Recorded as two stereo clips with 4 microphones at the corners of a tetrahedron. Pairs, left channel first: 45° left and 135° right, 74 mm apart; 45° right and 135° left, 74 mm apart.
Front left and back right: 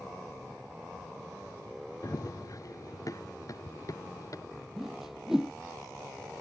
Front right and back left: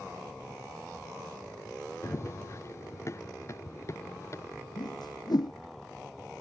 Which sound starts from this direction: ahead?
Running footsteps, at 2.0 s.